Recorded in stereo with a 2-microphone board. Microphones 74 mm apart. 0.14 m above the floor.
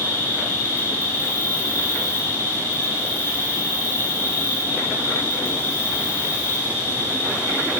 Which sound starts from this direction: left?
An insect, at 0.0 s.